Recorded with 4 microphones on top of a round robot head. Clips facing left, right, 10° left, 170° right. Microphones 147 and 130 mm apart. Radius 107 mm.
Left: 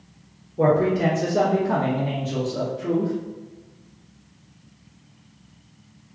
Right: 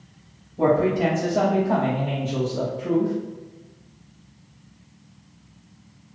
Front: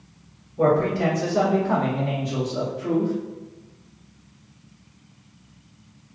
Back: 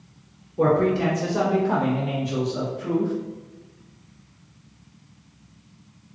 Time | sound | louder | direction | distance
0.6 | a man speaking | even, even | 130° left | 1.6 m